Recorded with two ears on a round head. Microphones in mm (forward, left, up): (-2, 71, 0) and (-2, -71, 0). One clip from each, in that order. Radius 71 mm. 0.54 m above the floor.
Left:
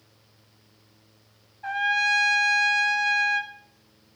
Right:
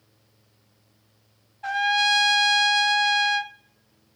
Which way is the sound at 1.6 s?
70° right (ahead or behind).